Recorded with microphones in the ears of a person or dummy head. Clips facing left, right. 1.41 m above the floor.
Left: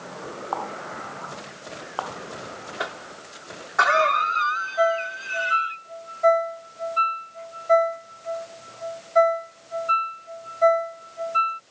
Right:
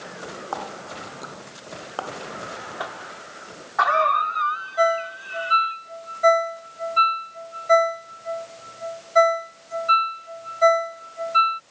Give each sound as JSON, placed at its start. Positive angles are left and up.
{"t": 0.5, "sound": "a running tap", "side_deg": -20}
{"t": 2.8, "sound": "a cough", "side_deg": 25}
{"t": 4.8, "sound": "a ringtone", "side_deg": -20}